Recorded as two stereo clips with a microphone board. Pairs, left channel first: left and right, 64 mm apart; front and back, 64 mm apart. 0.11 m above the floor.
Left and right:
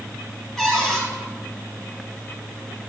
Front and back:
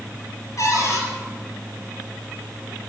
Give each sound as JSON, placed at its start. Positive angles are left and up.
{"t": 0.6, "sound": "a cupboard door", "azimuth_deg": 5, "distance_m": 3.0}